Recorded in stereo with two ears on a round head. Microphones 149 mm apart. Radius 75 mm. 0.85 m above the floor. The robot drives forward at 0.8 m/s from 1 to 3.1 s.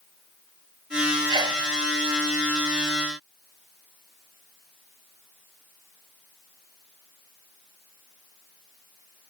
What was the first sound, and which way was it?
A sneeze, 25° right (ahead or behind).